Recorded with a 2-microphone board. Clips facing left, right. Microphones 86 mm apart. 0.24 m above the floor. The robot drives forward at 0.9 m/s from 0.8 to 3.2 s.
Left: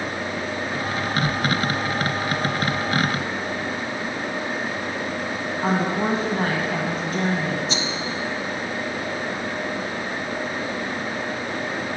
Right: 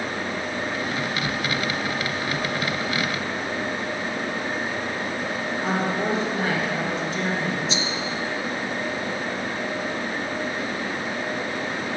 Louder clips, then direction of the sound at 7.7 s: Left 1 dB; 60° left (ahead or behind).